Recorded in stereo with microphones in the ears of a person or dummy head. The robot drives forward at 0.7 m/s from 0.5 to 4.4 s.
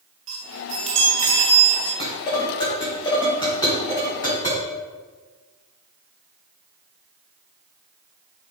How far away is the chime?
About 1.1 m.